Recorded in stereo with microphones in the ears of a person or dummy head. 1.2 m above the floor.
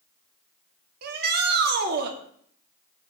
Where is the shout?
60° right (ahead or behind), 1.9 m.